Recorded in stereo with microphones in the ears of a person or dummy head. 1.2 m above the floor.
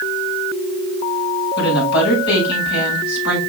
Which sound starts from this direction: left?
A woman speaking, at 1.6 s.